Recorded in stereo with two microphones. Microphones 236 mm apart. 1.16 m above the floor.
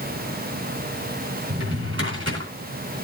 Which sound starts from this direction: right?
A drawer, at 1.5 s.